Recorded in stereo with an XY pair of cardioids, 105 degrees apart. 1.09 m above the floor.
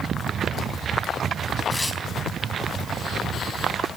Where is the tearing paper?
15° left, 2.5 m.